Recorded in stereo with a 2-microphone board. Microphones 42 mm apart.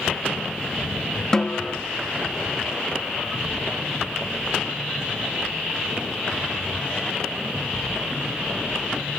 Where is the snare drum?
20° left (ahead or behind).